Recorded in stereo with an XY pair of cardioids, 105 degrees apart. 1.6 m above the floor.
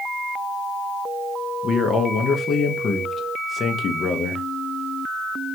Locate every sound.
1.6 s a man speaking: 50° left, 0.7 m